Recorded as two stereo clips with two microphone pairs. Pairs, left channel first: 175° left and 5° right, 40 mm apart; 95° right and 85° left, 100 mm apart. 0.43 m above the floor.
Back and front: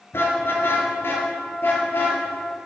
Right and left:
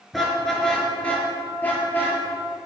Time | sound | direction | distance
0.1 | a car horn | 175° left | 4 m